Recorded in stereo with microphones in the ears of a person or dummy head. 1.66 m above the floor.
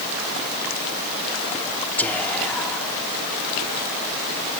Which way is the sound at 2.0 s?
10° left (ahead or behind).